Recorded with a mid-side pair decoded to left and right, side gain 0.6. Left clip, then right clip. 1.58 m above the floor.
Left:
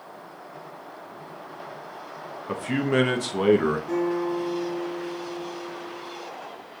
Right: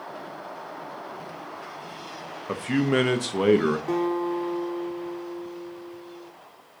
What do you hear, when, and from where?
2.5 s a man speaking: 10° right, 0.5 m
3.9 s a guitar: 55° right, 1.3 m